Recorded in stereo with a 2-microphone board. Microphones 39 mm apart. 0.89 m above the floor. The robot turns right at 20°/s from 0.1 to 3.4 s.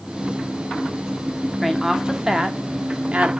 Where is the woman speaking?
5° right (ahead or behind), 1.8 m; by 3.3 s 40° right (ahead or behind), 1.8 m.